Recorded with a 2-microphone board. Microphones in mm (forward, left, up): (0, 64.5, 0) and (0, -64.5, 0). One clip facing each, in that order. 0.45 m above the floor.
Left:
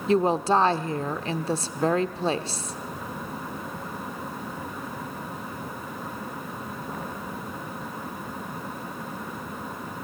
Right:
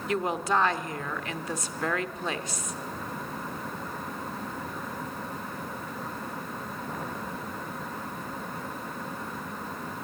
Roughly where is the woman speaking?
Left.